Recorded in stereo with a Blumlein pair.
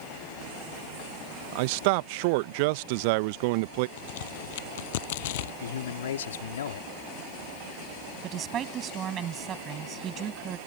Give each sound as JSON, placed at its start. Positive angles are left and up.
{"t": 1.5, "sound": "a man speaking", "azimuth_deg": -45}
{"t": 4.0, "sound": "a crack", "azimuth_deg": 55}
{"t": 5.6, "sound": "a man speaking", "azimuth_deg": 65}
{"t": 8.2, "sound": "a woman speaking", "azimuth_deg": -30}